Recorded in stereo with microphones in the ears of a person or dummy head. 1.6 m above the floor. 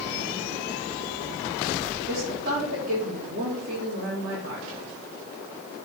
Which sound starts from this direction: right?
A woman speaking, at 2.1 s.